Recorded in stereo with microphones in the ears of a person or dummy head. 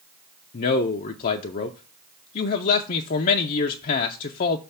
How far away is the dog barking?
I don't hear a dog barking.